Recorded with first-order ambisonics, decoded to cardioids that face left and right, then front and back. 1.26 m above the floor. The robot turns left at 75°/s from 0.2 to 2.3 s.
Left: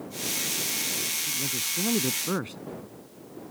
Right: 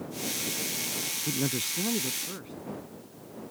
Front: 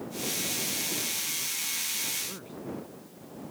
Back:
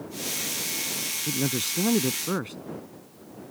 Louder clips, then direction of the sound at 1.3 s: Left 1 dB, back 4 dB; 145° right.